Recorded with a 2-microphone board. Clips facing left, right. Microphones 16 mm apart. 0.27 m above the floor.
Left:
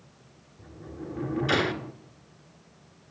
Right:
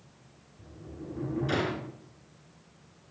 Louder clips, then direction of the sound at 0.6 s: Left 4 dB; 35° left (ahead or behind).